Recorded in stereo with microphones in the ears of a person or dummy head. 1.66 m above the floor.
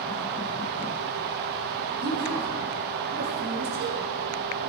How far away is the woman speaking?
About 5 m.